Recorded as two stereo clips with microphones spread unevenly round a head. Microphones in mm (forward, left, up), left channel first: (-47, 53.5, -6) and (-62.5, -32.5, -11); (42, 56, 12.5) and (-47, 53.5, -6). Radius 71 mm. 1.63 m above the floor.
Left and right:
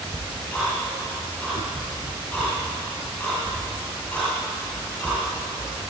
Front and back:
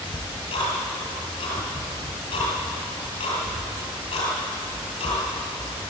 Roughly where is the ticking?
Ahead.